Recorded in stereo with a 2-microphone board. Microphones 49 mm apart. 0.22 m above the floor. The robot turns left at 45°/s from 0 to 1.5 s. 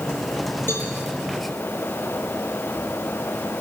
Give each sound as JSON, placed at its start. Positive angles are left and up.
{"t": 0.7, "sound": "a cowbell", "side_deg": 50, "distance_m": 7.0}